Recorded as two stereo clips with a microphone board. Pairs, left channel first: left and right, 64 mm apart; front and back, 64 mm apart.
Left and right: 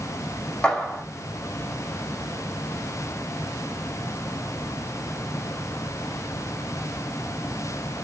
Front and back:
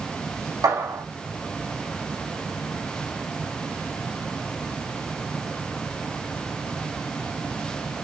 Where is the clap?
160° left, 4.5 m.